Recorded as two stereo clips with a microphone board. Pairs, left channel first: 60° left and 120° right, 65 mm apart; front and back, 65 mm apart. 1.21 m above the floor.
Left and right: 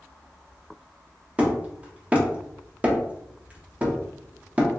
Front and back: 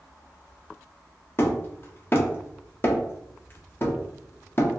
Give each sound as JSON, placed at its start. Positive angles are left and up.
{"t": 1.4, "sound": "hammering", "azimuth_deg": -50, "distance_m": 0.8}